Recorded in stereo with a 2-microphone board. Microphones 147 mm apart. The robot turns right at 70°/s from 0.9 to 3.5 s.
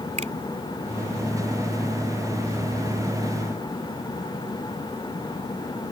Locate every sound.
0.2 s a finger snap: 50° right (ahead or behind)